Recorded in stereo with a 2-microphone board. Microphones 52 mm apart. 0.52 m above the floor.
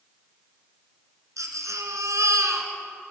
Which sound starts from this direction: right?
A baby crying, at 1.4 s.